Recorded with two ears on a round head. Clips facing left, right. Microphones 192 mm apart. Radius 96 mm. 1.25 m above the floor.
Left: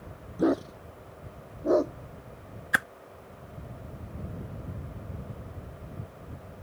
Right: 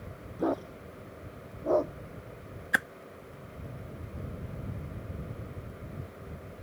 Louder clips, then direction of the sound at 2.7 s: Left 1 dB; centre (ahead or behind).